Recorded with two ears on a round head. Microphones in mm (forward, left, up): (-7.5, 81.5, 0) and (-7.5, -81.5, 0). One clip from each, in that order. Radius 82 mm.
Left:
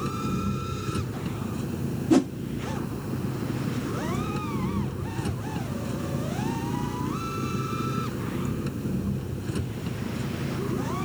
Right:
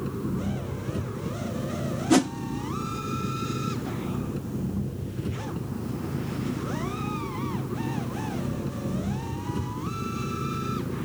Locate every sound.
0.0 s an engine running: 45° left (ahead or behind)
2.1 s a whoosh: 50° right (ahead or behind)